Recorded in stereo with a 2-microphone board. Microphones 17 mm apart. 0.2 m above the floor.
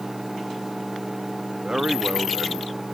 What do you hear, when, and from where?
1.6 s a man speaking: 60° right (ahead or behind)